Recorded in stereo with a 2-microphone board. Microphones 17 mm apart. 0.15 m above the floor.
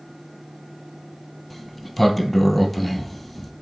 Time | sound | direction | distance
1.5 | a sliding door | centre (ahead or behind) | 0.7 m